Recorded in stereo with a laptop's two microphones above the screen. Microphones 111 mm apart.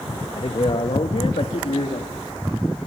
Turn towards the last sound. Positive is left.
turn(degrees=80)